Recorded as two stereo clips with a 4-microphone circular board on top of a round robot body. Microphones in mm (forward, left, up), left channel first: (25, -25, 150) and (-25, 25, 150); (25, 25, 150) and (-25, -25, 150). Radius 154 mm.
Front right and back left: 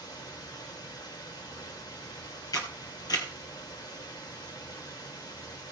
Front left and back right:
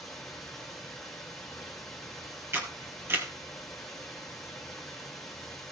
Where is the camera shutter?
80° right, 2.5 m.